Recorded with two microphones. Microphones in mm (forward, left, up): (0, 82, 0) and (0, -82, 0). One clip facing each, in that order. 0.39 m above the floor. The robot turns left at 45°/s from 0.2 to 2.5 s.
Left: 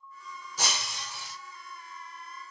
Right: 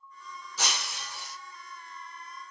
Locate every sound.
0.6 s breaking glass: 15° left, 2 m; by 1.4 s 25° right, 2 m